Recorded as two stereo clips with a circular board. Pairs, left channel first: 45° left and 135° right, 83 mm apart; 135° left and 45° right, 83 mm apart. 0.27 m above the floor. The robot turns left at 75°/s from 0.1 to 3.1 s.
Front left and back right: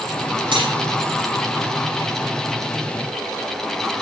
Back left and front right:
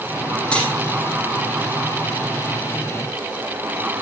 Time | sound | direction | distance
0.5 | cutlery clinking | 145° right | 6.5 m